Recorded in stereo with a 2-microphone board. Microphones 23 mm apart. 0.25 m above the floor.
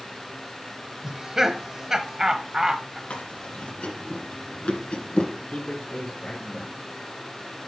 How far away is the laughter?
About 1.0 m.